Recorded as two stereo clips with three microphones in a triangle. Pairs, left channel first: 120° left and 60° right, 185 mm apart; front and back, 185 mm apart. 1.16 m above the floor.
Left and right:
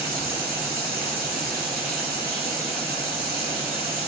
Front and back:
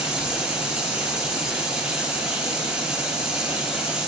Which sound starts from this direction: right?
Running water, at 0.0 s.